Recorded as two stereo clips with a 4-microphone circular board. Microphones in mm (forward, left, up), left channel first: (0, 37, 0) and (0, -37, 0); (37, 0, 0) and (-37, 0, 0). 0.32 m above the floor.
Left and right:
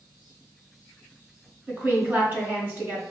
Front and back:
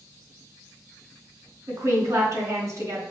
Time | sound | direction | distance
1.7 | a woman speaking | 150° right | 1.9 m